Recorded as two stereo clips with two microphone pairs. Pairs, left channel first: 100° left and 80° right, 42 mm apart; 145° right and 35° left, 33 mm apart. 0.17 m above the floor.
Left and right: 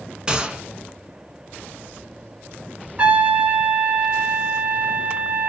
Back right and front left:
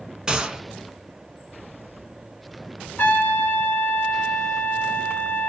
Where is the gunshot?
25° right, 0.8 m.